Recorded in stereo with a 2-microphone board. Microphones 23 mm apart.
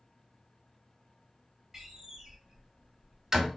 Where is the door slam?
20° right (ahead or behind), 1.0 m.